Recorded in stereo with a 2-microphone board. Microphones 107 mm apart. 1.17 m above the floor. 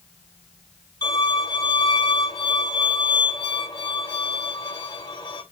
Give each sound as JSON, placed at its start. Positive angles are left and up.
{"t": 1.0, "sound": "a violin", "side_deg": 40, "distance_m": 5.5}